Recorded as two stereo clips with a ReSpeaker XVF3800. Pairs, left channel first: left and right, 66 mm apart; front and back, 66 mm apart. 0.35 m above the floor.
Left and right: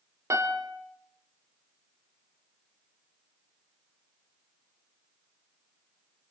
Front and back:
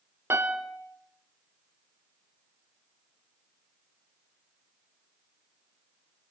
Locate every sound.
0.3 s a piano: 130° right, 1.5 m